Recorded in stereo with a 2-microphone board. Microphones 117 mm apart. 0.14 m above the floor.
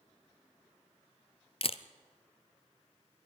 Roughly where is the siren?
No siren in this recording.